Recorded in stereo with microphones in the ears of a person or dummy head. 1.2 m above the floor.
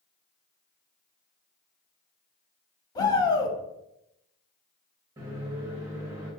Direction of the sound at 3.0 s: 25° left (ahead or behind).